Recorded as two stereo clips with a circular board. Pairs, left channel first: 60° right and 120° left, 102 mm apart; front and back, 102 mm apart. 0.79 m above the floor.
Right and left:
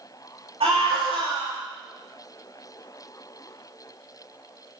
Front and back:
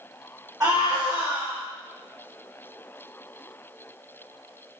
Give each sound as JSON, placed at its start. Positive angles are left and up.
{"t": 0.6, "sound": "a scream", "azimuth_deg": 115, "distance_m": 3.5}